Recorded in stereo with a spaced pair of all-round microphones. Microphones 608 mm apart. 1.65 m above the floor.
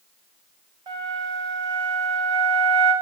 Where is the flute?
65° right (ahead or behind), 2 m.